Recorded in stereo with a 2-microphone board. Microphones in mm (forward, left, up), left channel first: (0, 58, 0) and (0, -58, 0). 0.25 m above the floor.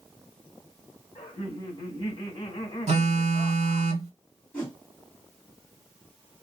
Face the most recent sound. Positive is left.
turn(degrees=15)  # may be behind; listen again after turning